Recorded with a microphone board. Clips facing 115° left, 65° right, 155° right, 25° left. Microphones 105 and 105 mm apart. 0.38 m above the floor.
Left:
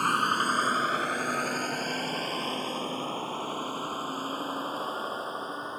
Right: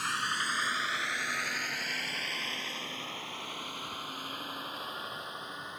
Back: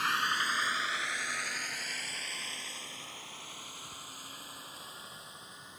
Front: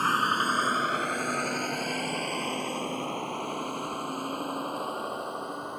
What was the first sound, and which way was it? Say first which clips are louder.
A vehicle: left 8 dB, front 7 dB; 75° left.